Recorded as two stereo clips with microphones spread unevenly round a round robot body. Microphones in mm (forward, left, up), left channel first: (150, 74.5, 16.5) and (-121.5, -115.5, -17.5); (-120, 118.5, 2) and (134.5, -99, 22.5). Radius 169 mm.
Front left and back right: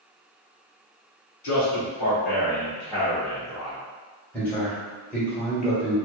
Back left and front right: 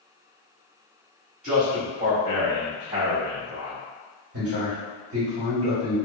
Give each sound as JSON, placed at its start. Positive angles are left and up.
{"t": 1.4, "sound": "a man speaking", "azimuth_deg": 40, "distance_m": 1.5}
{"t": 4.3, "sound": "a man speaking", "azimuth_deg": -55, "distance_m": 1.3}